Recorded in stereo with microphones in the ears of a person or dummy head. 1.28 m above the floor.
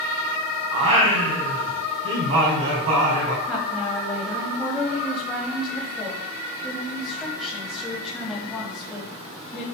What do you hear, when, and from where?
0.7 s singing: 40° right (ahead or behind), 3 m
3.5 s a woman speaking: 15° left (ahead or behind), 2.5 m